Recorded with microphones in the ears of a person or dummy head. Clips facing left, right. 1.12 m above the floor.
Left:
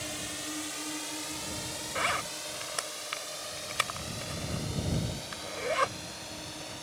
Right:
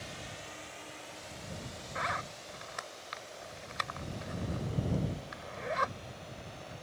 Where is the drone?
55° left (ahead or behind); by 6.8 s 75° left (ahead or behind).